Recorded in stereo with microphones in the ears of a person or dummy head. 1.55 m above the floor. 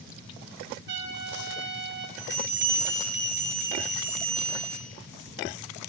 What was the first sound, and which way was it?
A trumpet, 65° right (ahead or behind).